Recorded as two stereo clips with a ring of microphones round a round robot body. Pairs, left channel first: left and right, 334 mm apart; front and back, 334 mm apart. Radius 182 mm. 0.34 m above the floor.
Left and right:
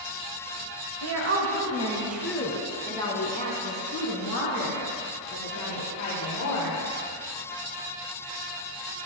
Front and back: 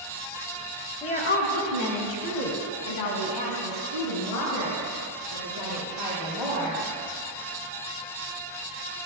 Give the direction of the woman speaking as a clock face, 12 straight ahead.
2 o'clock.